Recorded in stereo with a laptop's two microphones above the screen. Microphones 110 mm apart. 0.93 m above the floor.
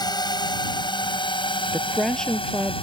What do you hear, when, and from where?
0.0 s a drone: 40° left (ahead or behind); by 2.8 s 55° left (ahead or behind)
1.7 s a woman speaking: 5° left (ahead or behind)